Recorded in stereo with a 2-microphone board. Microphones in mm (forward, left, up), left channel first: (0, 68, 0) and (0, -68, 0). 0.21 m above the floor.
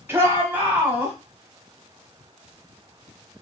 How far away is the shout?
About 1.3 m.